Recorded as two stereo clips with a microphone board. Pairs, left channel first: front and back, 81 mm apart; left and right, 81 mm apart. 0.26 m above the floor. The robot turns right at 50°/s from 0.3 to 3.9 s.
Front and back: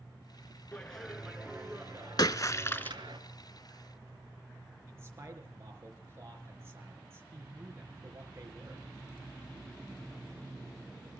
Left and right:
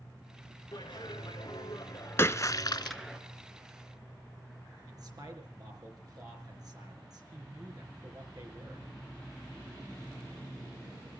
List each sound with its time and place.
0.7 s a clap: 70° left, 2.5 m; by 3.2 s 165° right, 2.5 m
2.2 s a splash: 35° left, 0.6 m; by 3.0 s 70° left, 0.6 m
4.9 s a man speaking: 125° right, 4 m